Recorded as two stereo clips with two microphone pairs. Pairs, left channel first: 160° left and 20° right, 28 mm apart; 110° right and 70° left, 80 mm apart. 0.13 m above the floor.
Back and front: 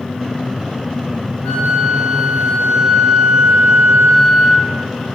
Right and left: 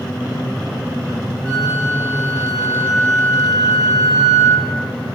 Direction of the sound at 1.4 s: 150° left.